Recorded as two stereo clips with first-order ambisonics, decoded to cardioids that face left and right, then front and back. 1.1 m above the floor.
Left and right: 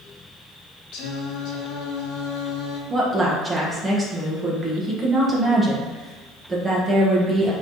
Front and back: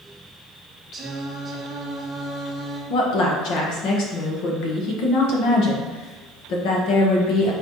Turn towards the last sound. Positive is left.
turn(degrees=-10)